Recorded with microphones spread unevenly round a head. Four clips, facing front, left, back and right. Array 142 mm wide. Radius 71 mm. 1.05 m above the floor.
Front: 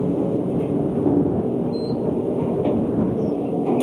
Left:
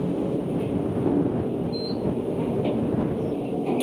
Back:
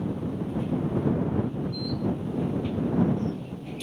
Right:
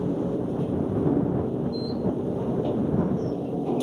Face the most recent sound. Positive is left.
turn(degrees=5)